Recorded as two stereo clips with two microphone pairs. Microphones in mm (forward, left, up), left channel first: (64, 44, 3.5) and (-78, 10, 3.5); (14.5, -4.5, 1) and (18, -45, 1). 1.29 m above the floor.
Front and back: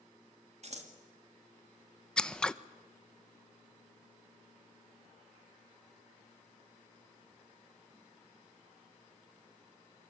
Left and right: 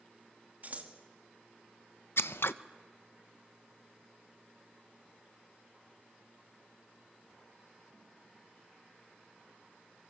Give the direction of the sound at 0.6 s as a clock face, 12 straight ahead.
4 o'clock.